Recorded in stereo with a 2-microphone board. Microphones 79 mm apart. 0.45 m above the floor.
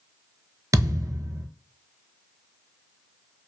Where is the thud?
50° right (ahead or behind), 0.5 m.